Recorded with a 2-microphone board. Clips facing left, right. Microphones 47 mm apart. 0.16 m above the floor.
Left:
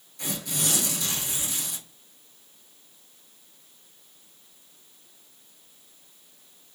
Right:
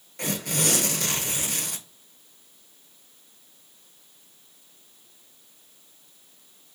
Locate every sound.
0.2 s tearing paper: 65° right (ahead or behind), 0.6 m